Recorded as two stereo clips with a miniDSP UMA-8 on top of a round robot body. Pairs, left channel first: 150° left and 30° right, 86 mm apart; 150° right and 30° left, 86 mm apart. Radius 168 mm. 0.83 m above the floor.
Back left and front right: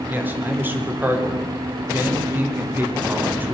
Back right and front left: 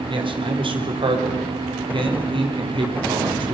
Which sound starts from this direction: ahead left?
A man speaking, at 0.1 s.